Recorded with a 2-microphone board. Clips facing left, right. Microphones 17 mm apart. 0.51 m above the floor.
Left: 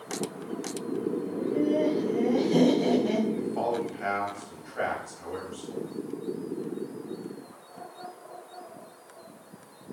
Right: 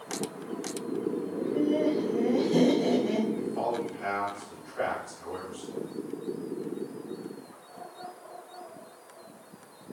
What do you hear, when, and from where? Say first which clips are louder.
1.3 s laughter: left 1 dB; 35° left (ahead or behind), 2.5 m; by 3.2 s 75° left (ahead or behind), 3.5 m
3.3 s a man speaking: left 1 dB; 25° left (ahead or behind), 3 m